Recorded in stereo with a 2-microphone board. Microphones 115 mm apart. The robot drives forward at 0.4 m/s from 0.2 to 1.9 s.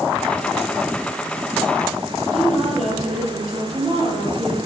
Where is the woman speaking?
Centre (ahead or behind), 7 m.